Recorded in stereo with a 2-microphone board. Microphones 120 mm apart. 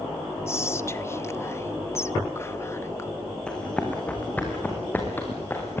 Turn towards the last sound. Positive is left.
turn(degrees=20)  # may be behind; listen again after turning